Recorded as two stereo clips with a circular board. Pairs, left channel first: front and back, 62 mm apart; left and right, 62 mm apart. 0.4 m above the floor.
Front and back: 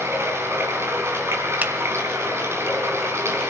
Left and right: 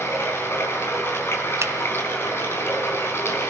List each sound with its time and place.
0.0 s running water: 135° left, 4 m
1.6 s a finger snap: 125° right, 1.2 m